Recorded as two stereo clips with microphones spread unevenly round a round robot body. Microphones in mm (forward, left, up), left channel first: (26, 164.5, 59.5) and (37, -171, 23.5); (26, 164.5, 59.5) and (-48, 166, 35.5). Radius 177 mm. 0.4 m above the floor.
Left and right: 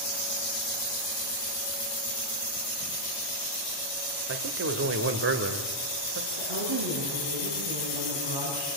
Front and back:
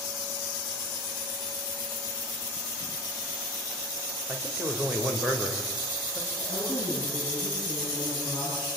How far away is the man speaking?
About 1.9 m.